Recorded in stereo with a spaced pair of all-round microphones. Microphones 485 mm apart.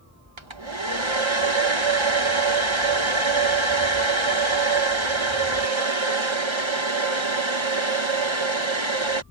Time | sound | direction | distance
0.4 | a hair dryer | 70° right (ahead or behind) | ?